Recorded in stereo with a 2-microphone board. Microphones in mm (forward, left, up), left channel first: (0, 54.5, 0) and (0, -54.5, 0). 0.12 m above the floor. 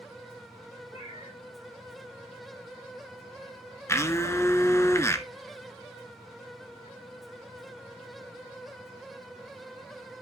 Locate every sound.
0.9 s a cat meowing: 85° left, 4.5 m
3.9 s a blender: 25° left (ahead or behind), 1.1 m